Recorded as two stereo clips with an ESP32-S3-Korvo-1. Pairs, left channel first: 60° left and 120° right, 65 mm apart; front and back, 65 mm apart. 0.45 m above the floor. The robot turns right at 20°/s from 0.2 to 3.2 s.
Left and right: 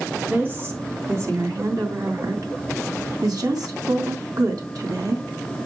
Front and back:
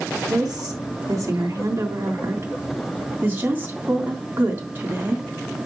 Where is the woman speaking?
Straight behind, 3 m; by 5.2 s 120° right, 3 m.